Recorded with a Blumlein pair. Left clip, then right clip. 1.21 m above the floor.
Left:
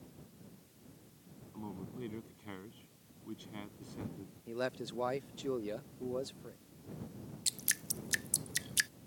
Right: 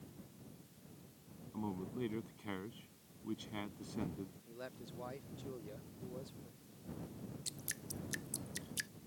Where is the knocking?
No knocking in this recording.